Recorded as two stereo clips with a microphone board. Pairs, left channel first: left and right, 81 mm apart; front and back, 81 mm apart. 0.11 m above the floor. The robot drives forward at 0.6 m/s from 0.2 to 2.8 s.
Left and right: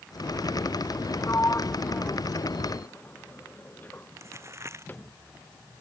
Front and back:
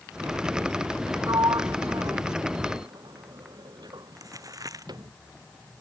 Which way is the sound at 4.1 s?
140° right.